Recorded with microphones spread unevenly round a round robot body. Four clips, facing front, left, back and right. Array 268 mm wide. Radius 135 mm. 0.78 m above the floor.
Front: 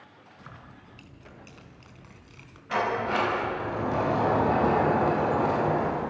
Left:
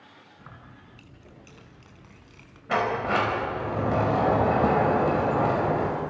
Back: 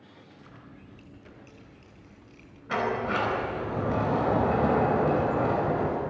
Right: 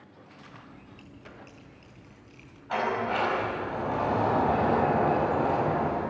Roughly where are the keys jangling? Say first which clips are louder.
Even, front 3 dB; ahead left.